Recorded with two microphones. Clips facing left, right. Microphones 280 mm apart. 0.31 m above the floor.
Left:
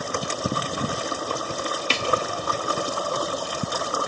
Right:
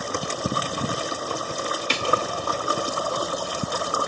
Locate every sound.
1.9 s a snare drum: 15° right (ahead or behind), 1.2 m